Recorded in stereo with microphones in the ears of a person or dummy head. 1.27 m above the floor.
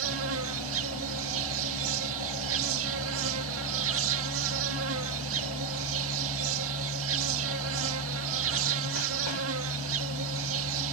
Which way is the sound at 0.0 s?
75° right (ahead or behind).